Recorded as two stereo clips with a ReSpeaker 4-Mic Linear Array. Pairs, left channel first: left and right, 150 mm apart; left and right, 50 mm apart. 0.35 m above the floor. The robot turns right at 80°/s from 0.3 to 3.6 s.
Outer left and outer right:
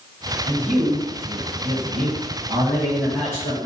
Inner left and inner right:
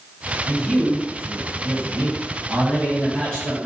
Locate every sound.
0.5 s a man speaking: 155° left, 2.5 m; by 3.7 s 45° left, 2.5 m